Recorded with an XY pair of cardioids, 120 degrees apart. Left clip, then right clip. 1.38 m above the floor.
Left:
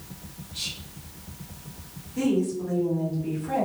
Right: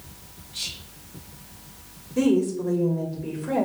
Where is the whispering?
20° right, 1.3 m.